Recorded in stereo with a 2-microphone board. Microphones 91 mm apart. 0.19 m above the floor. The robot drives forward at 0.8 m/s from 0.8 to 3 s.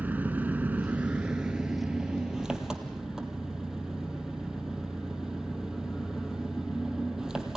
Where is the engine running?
20° right (ahead or behind), 0.8 m; by 7.6 s 5° right (ahead or behind), 2.5 m.